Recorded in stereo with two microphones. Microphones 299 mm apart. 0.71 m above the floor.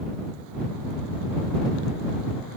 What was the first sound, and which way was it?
Only background noise.